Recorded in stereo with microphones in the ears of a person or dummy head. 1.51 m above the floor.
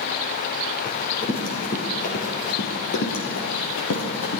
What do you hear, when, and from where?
0.8 s running footsteps: 10° left (ahead or behind), 2 m; by 4.4 s 60° left (ahead or behind), 3.5 m